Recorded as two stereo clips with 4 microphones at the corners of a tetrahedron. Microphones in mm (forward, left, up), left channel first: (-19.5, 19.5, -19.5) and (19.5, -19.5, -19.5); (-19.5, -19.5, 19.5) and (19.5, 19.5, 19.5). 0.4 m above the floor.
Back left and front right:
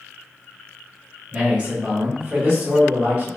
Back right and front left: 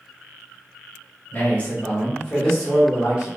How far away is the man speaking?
About 1.3 m.